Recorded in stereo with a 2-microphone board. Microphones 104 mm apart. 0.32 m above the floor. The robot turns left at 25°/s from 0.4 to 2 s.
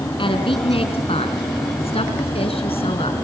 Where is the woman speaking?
120° left, 4 m; by 3.2 s 80° left, 4 m.